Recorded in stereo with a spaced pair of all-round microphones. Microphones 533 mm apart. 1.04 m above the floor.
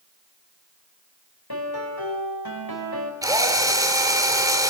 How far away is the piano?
About 5 m.